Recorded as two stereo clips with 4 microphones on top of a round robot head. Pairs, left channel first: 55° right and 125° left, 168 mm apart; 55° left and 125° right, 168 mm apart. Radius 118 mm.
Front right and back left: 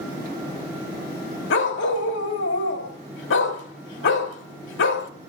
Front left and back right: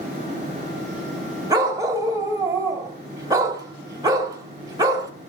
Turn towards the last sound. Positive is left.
turn(degrees=-55)